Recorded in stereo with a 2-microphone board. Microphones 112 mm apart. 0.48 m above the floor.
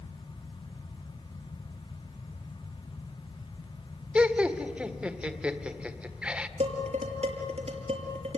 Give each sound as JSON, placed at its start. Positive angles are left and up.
{"t": 4.2, "sound": "laughter", "side_deg": -10, "distance_m": 1.7}
{"t": 6.6, "sound": "dishes clattering", "side_deg": -80, "distance_m": 6.0}